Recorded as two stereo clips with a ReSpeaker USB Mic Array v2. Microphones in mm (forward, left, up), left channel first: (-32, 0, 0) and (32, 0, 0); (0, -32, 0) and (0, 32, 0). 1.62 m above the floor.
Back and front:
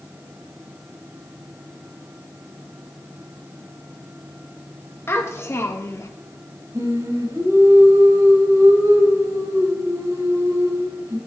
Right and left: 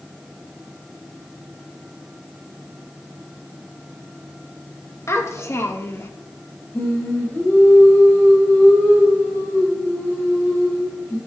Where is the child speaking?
130° right, 2 m; by 6.1 s 140° right, 1.3 m.